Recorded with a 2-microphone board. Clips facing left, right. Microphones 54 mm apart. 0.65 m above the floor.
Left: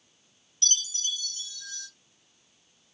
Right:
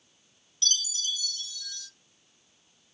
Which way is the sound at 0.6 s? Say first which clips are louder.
Right 1 dB; 45° left (ahead or behind).